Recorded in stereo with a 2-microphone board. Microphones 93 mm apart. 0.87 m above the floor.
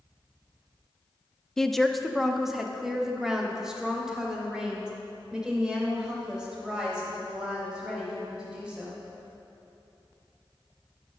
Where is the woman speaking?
5° left (ahead or behind), 0.6 m; by 9.0 s 10° right (ahead or behind), 4.5 m.